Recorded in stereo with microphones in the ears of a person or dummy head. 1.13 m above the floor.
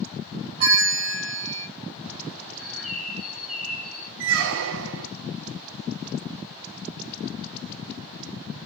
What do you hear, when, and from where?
0.6 s a bell: 45° right (ahead or behind), 2.5 m
2.5 s a bird: centre (ahead or behind), 0.9 m
4.2 s a squeak: 70° right (ahead or behind), 0.5 m